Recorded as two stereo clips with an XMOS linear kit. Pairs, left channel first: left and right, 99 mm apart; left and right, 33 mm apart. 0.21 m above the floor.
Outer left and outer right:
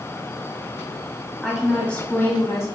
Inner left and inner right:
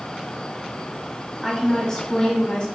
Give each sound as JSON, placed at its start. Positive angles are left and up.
{"t": 1.4, "sound": "a woman speaking", "side_deg": 0, "distance_m": 1.2}